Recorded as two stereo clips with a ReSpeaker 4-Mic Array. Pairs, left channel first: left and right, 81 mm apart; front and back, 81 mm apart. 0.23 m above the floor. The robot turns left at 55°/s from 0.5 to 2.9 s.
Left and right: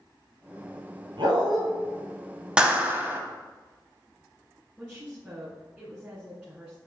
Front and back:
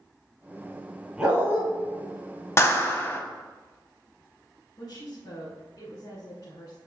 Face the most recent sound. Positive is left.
turn(degrees=-10)